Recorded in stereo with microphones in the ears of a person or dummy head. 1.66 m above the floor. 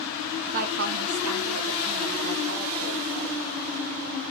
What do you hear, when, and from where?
0.5 s a woman speaking: 40° right (ahead or behind), 0.6 m